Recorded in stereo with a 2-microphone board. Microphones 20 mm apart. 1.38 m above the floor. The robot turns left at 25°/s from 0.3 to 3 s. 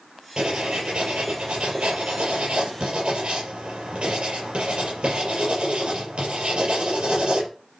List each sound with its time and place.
0.4 s writing: 50° right, 5 m; by 7.5 s 115° right, 5 m